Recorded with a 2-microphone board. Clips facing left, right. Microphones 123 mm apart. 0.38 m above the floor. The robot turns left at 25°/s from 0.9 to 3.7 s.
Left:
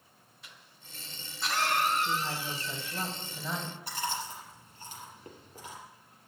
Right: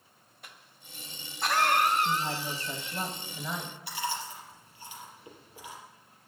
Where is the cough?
55° right (ahead or behind), 2.5 m; by 3.0 s 25° right (ahead or behind), 2.5 m.